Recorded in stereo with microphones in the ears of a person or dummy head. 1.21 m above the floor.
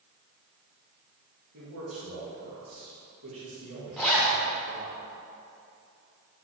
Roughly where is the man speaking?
Right.